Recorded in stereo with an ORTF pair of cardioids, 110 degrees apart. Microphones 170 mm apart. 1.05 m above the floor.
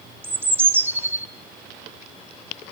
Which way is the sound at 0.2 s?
10° right.